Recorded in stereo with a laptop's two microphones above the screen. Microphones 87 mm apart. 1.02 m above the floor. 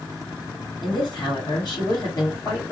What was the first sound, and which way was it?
A woman speaking, 55° left (ahead or behind).